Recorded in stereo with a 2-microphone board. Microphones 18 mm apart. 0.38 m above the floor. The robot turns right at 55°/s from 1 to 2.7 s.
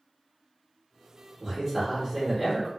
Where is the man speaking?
20° right (ahead or behind), 1.0 m; by 2.7 s 15° right (ahead or behind), 1.0 m.